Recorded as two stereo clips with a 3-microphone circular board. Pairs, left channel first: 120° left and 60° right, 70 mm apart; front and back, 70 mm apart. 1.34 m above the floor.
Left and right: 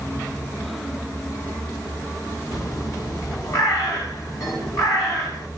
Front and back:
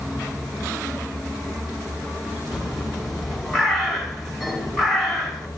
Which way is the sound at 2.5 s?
90° left.